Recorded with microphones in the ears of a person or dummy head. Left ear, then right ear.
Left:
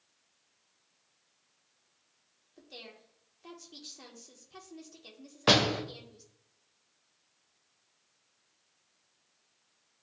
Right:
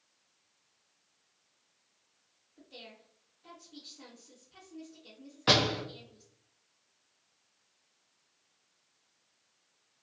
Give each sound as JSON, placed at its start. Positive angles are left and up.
{"t": 2.6, "sound": "a woman speaking", "side_deg": 85, "distance_m": 0.9}
{"t": 5.5, "sound": "a door slam", "side_deg": 20, "distance_m": 0.6}